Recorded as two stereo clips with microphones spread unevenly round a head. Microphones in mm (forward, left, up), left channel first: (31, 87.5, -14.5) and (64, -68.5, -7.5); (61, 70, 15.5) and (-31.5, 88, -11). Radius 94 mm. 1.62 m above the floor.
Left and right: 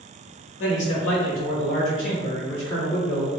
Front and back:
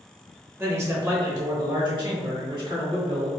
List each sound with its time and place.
0.6 s a man speaking: 100° left, 1.2 m; by 3.3 s 140° left, 2 m